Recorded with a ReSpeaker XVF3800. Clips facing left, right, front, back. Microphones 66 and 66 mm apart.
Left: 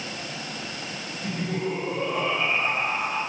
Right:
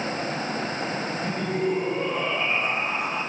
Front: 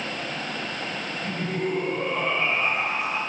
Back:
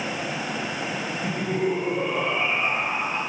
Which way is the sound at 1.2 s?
155° right.